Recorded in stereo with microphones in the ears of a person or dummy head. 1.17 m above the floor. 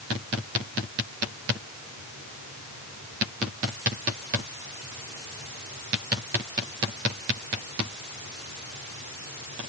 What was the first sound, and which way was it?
Only background noise.